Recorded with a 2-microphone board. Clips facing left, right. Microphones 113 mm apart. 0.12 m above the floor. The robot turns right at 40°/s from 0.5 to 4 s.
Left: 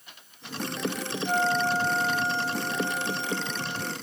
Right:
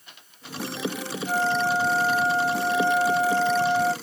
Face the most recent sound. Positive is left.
turn(degrees=-70)